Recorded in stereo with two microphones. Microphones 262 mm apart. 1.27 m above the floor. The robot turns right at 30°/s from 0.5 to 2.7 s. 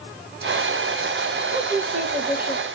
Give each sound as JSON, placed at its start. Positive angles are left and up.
{"t": 1.5, "sound": "a woman speaking", "azimuth_deg": -35, "distance_m": 1.5}